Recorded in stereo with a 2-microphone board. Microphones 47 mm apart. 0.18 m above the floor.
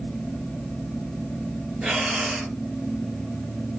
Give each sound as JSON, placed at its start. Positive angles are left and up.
{"t": 1.8, "sound": "breathing", "side_deg": -10, "distance_m": 1.9}